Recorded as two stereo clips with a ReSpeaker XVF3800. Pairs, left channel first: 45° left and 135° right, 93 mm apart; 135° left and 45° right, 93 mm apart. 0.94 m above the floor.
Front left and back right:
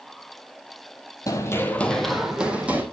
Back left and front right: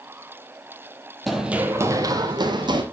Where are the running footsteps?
45° left, 1.1 m; by 2.8 s 65° right, 1.8 m.